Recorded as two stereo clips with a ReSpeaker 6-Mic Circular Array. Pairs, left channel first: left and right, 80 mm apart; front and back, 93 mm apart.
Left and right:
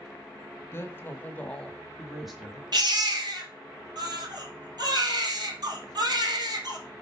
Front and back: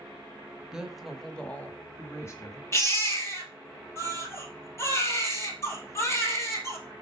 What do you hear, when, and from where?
0.7 s a woman speaking: 105° left, 1.1 m; by 2.6 s 15° right, 1.2 m
2.7 s a baby crying: 60° right, 2.0 m